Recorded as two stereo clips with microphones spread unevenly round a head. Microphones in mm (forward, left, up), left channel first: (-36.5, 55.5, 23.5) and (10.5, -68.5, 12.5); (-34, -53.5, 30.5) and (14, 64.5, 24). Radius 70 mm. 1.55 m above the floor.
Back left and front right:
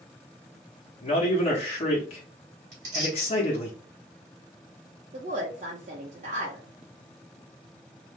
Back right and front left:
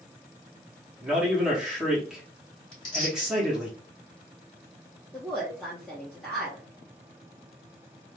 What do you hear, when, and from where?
1.0 s a man speaking: 155° left, 0.9 m
2.7 s tearing paper: 75° right, 1.5 m
5.1 s a woman speaking: 25° right, 0.6 m